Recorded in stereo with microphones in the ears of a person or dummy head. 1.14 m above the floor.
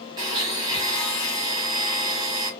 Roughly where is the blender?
Right.